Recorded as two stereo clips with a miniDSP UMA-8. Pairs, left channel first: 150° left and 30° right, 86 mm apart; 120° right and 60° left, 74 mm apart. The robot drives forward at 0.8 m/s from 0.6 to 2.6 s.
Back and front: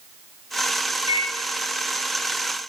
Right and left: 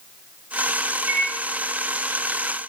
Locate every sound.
1.1 s a microwave: straight ahead, 1.3 m; by 1.3 s 5° left, 1.1 m